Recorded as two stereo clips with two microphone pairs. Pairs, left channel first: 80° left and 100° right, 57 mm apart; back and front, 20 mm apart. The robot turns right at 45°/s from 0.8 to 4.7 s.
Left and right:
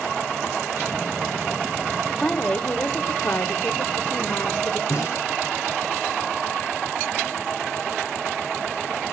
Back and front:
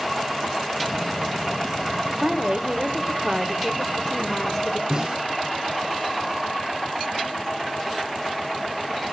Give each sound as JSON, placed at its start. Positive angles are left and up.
{"t": 2.2, "sound": "a woman speaking", "azimuth_deg": 5, "distance_m": 1.2}
{"t": 4.9, "sound": "a snare drum", "azimuth_deg": 40, "distance_m": 9.5}